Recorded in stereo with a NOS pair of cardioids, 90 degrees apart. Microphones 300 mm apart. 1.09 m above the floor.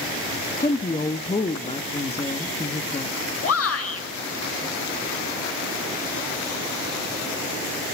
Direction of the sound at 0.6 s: 20° left.